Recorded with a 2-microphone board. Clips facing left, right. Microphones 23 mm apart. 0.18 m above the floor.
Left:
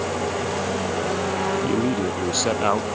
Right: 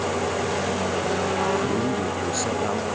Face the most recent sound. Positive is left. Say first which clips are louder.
# left 2 dB
turn(degrees=40)  # may be behind; listen again after turning